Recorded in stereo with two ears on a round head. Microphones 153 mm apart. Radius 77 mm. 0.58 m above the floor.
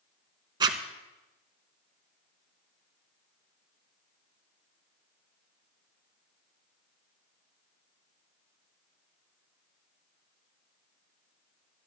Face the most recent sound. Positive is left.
turn(degrees=-25)  # may be behind; listen again after turning